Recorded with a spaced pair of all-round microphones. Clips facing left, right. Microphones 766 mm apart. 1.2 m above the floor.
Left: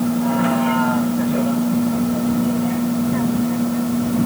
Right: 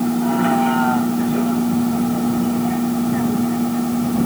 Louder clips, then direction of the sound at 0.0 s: Even; 10° left (ahead or behind).